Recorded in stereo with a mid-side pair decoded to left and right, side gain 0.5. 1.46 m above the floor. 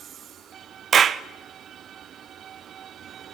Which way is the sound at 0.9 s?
45° right.